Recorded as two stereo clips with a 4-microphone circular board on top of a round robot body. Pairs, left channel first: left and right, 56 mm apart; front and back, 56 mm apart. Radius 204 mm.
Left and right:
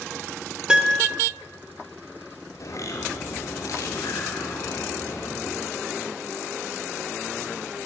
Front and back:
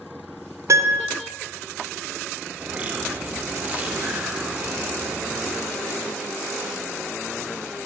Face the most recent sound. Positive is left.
turn(degrees=120)